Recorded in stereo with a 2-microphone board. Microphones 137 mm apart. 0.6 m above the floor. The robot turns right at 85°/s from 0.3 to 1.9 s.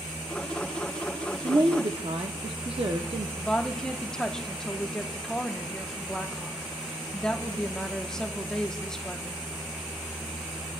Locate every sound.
1.4 s a woman speaking: 130° right, 0.8 m; by 3.3 s 90° right, 0.8 m
3.4 s a woman speaking: 5° left (ahead or behind), 1.0 m